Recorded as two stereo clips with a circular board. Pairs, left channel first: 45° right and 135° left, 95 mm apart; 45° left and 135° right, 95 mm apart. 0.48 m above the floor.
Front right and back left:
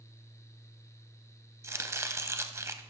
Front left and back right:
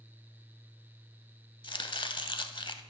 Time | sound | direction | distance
1.6 | chopping | 75° left | 0.5 m